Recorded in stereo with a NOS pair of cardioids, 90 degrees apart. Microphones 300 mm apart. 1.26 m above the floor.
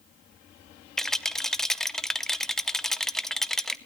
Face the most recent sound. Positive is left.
turn(degrees=0)